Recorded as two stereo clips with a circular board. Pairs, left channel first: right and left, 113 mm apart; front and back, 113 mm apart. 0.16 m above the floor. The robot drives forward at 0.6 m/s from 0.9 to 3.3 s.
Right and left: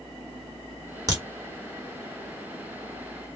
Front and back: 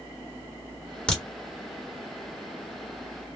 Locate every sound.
1.1 s a crack: 75° left, 1.6 m; by 1.2 s 80° left, 1.6 m